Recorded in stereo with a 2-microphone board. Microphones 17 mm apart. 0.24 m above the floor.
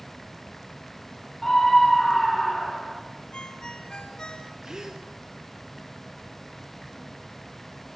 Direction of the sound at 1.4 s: 35° left (ahead or behind).